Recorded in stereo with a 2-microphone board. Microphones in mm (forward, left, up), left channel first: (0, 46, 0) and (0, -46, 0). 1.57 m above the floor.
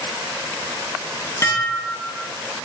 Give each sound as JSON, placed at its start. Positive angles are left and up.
{"t": 1.4, "sound": "dishes clattering", "side_deg": 25, "distance_m": 0.8}